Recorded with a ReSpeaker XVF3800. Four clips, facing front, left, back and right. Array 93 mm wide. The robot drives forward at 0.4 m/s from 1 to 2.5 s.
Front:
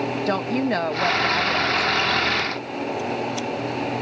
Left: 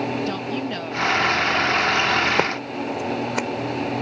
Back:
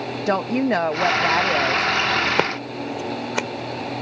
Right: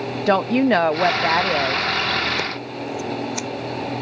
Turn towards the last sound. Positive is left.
turn(degrees=145)